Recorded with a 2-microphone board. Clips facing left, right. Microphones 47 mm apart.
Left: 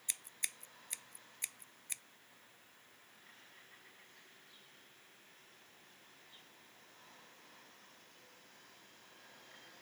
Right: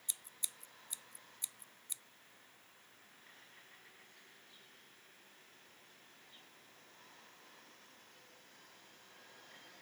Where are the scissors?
65° left (ahead or behind).